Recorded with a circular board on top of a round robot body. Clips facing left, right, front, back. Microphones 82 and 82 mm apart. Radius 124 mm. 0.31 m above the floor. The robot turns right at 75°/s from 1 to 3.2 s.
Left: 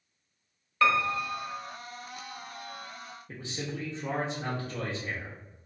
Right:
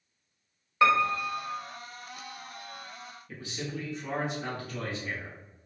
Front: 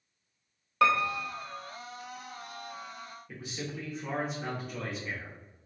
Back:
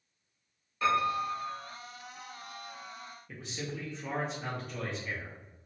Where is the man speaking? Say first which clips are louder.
Even, even; 85° left, 1.0 m.